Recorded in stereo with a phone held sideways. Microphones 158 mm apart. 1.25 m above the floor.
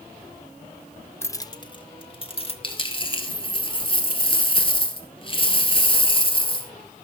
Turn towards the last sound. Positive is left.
turn(degrees=35)  # may be behind; listen again after turning